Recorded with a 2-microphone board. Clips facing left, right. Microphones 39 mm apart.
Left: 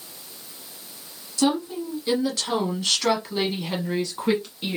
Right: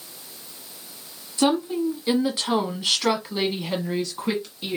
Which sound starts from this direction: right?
A woman speaking, at 1.4 s.